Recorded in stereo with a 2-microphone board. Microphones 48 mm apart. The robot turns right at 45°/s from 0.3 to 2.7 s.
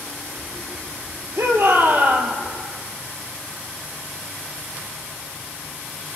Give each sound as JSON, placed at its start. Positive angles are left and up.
{"t": 1.4, "sound": "a shout", "azimuth_deg": -70, "distance_m": 3.0}